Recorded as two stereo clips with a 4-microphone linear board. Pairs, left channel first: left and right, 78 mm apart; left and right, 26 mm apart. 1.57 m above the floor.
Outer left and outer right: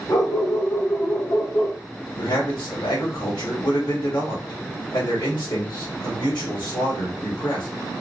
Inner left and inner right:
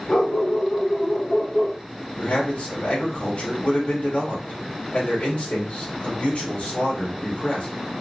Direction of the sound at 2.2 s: 80° left.